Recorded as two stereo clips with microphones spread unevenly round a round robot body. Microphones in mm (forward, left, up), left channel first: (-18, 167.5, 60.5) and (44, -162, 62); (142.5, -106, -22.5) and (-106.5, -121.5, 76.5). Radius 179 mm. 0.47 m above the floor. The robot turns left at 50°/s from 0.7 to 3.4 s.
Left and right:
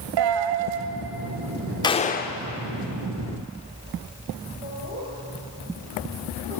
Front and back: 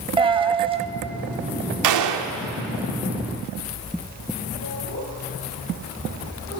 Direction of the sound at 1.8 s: 175° left.